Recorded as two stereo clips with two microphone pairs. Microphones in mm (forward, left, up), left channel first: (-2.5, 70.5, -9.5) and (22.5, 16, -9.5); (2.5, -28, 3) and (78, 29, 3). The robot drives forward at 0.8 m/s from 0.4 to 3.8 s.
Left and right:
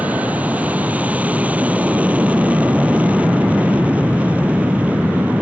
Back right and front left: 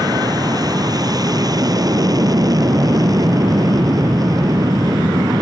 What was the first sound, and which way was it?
An aircraft, straight ahead.